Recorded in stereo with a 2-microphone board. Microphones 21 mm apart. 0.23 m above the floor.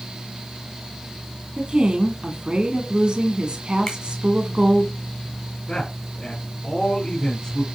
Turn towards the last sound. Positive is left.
turn(degrees=30)  # may be behind; listen again after turning